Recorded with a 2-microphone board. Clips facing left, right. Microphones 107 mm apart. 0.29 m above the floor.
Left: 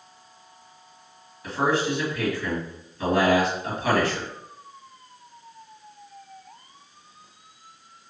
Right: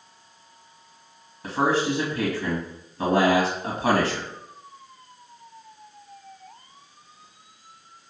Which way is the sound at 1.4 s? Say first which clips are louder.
Right 1 dB; 45° right (ahead or behind).